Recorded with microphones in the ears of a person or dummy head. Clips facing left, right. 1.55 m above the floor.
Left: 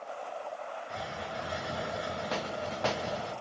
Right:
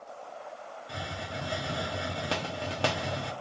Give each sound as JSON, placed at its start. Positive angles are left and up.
{"t": 0.9, "sound": "a hiss", "side_deg": -40, "distance_m": 0.5}